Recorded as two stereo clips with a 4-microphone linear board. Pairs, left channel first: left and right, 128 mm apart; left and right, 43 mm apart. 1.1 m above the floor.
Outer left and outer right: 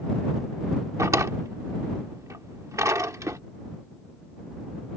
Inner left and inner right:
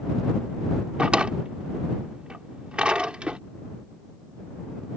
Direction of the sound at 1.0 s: 25° right (ahead or behind).